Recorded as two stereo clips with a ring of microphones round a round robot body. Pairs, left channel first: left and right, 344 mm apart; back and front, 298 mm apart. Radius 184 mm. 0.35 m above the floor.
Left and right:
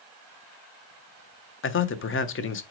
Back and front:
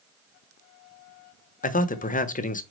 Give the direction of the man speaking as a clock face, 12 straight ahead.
8 o'clock.